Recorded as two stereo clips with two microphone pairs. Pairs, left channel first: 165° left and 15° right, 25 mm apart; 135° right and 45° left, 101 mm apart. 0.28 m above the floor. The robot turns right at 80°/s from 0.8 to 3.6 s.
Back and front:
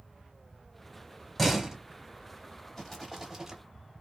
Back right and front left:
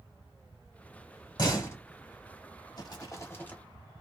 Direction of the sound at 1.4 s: 105° right.